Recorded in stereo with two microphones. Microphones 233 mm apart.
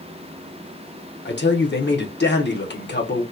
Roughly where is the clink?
I don't hear a clink.